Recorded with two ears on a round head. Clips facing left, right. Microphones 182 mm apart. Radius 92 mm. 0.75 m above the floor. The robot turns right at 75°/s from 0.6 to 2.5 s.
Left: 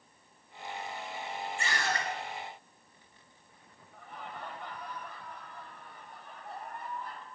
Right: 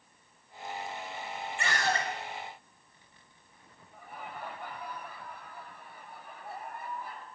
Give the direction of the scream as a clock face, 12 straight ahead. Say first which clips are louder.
Right 4 dB; 2 o'clock.